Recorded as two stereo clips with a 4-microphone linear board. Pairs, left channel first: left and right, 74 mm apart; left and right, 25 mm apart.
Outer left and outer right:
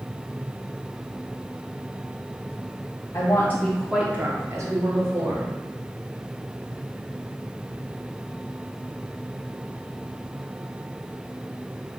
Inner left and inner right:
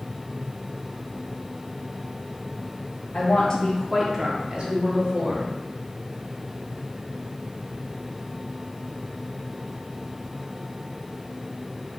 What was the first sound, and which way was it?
A woman speaking, 45° left (ahead or behind).